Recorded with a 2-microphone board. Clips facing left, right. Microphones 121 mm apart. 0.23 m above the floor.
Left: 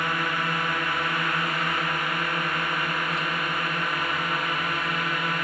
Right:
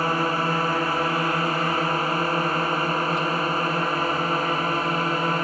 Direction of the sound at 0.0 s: 35° right (ahead or behind).